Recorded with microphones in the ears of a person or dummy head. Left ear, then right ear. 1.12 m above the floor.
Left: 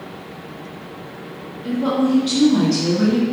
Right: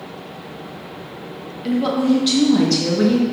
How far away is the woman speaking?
About 1.1 m.